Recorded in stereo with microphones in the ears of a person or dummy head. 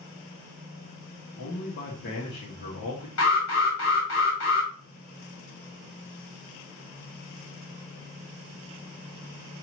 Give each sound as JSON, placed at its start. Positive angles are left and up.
{"t": 1.4, "sound": "a man speaking", "side_deg": 55, "distance_m": 1.5}
{"t": 3.2, "sound": "an alarm", "side_deg": 75, "distance_m": 2.5}